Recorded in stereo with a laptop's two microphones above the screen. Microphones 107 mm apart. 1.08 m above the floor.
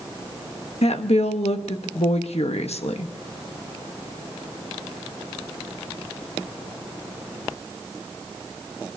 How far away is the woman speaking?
About 1.2 m.